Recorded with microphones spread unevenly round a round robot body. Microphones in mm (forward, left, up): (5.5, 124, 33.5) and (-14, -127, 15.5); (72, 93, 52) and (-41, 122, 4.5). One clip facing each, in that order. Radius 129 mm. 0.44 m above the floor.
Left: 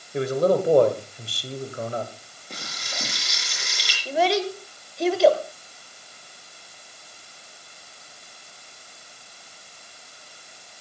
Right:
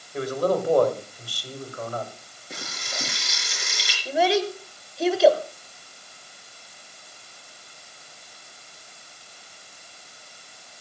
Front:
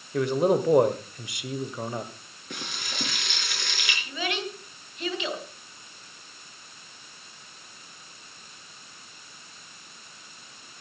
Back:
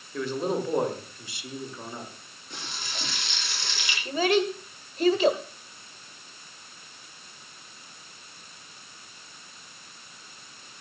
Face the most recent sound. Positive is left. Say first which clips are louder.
# right 1 dB, back 10 dB
turn(degrees=180)